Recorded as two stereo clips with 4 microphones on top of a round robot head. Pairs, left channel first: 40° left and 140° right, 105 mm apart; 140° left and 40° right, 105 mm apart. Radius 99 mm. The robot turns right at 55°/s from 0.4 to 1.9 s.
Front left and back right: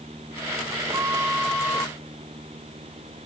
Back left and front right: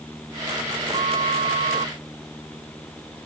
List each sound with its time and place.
0.9 s a flute: 80° right; by 1.9 s 25° right